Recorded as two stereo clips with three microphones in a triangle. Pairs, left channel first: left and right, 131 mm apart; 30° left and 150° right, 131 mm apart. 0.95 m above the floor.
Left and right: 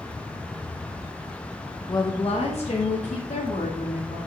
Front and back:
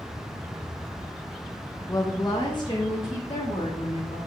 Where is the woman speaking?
70° left, 0.8 m; by 4.2 s 80° left, 2.5 m.